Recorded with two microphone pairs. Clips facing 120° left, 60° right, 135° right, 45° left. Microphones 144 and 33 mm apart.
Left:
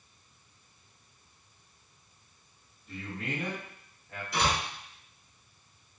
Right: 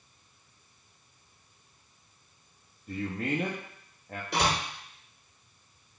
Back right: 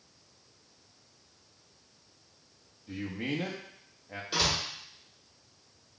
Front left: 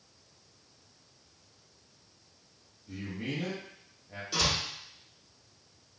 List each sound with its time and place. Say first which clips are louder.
2.9 s a man speaking: right 6 dB, back right 3 dB; 80° right, 0.5 m
4.3 s a door slam: right 1 dB, even; 65° right, 1.2 m